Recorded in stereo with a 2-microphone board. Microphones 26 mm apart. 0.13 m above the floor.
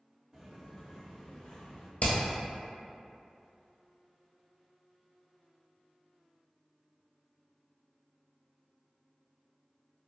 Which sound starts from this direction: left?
Hammering, at 2.0 s.